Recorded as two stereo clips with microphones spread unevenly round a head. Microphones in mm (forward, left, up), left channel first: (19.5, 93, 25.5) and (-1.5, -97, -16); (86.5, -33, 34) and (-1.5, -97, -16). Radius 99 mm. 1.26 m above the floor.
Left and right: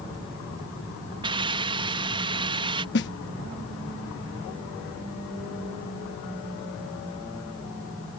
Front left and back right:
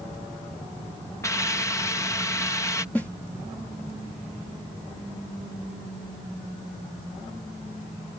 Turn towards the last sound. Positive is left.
turn(degrees=120)